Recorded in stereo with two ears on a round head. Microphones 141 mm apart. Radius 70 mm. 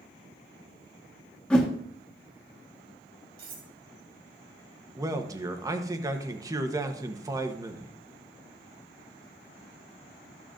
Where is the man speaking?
20° right (ahead or behind), 1.0 m.